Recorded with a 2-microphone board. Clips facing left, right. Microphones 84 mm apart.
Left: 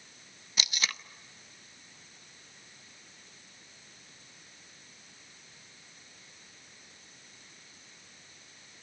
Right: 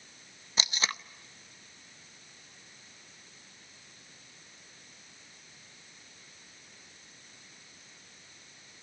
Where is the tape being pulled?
30° right (ahead or behind), 0.7 m.